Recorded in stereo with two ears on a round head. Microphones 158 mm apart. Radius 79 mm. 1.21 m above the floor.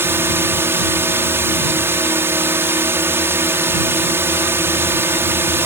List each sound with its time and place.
0.0 s a drone: 15° right (ahead or behind)